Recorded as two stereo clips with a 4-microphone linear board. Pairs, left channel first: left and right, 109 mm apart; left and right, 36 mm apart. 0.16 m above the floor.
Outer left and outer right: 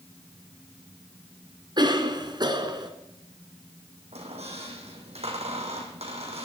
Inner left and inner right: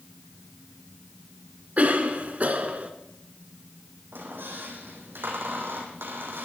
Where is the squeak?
75° right (ahead or behind), 3.5 m.